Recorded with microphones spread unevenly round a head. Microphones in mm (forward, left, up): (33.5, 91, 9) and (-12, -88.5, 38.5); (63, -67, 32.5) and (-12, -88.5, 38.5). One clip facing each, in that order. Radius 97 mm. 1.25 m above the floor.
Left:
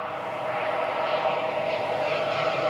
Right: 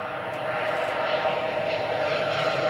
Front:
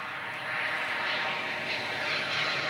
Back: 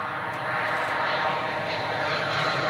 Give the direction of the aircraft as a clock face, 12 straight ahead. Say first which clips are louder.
Even, back 7 dB; 6 o'clock.